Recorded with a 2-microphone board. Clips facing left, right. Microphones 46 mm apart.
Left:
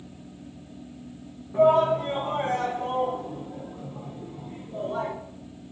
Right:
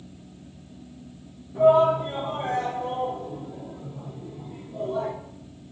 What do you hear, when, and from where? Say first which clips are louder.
1.5 s a shout: right 2 dB; 60° left (ahead or behind), 3 m; by 5.1 s 35° left (ahead or behind), 3.5 m